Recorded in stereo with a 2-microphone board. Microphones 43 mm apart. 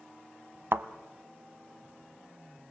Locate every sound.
0.7 s a thud: 60° right (ahead or behind), 0.8 m